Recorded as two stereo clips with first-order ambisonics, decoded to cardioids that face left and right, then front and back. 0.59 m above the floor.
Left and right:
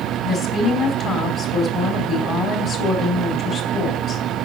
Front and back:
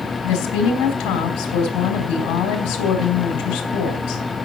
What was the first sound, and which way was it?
A woman speaking, 35° left.